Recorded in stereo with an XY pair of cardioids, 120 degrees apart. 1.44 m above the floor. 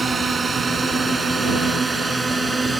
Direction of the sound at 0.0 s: 25° right.